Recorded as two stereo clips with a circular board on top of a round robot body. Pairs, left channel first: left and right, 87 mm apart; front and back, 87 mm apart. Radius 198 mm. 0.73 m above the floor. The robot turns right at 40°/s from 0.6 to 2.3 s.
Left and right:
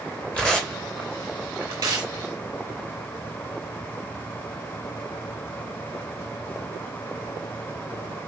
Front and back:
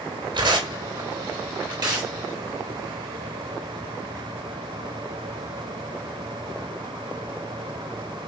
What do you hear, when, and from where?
0.3 s tearing paper: 165° left, 3.5 m; by 2.1 s 135° right, 3.5 m